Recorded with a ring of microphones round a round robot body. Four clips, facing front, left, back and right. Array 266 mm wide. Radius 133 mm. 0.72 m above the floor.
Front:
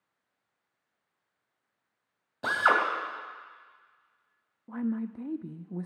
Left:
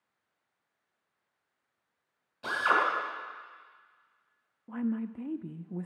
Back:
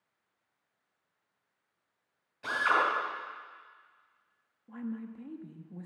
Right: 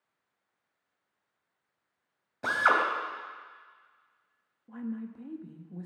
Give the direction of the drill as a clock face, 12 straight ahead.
1 o'clock.